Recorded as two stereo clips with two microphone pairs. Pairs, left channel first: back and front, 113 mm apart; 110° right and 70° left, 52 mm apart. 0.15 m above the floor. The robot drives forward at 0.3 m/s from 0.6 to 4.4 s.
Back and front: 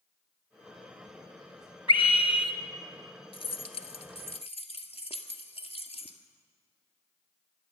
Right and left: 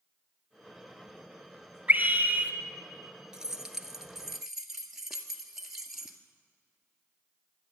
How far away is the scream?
About 1.7 m.